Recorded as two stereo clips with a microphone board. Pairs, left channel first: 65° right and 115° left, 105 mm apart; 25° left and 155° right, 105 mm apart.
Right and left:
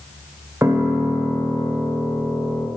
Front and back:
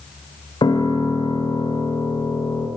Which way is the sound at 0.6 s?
50° left.